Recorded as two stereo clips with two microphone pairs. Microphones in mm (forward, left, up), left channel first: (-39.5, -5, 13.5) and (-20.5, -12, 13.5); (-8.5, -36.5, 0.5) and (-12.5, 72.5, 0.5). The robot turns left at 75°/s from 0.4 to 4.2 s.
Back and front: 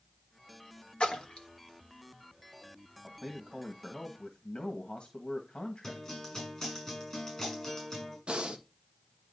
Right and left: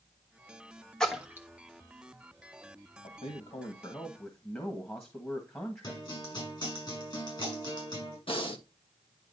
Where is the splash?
170° right, 1.4 m; by 1.5 s 155° left, 1.4 m.